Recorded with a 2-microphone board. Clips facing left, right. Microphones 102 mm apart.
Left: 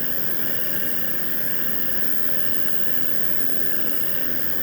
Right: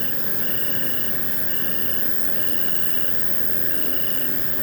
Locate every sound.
0.0 s an insect: 85° right